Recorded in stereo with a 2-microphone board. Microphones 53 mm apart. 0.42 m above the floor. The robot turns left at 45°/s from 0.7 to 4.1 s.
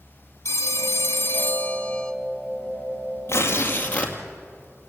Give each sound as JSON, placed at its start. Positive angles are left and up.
{"t": 0.5, "sound": "a phone ringing", "azimuth_deg": 80, "distance_m": 1.0}
{"t": 3.3, "sound": "tearing paper", "azimuth_deg": 55, "distance_m": 2.5}